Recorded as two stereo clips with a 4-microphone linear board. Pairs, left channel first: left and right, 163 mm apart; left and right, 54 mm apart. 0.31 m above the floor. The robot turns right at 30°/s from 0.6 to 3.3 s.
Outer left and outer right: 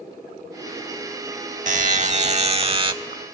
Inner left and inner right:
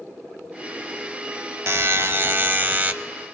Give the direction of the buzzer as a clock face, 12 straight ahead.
3 o'clock.